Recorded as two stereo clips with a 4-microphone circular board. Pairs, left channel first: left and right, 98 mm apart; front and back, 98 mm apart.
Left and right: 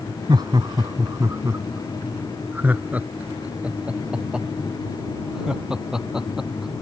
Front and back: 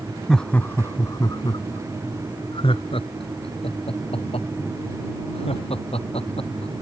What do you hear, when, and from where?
0.3 s laughter: 85° right; by 6.7 s 5° right